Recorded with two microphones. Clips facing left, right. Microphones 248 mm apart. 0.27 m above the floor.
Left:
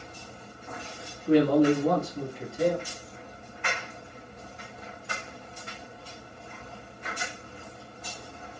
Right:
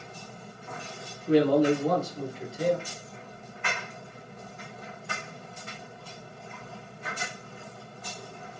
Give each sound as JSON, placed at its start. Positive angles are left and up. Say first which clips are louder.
{"t": 1.3, "sound": "a man speaking", "louder": "left 1 dB", "side_deg": 55, "distance_m": 1.8}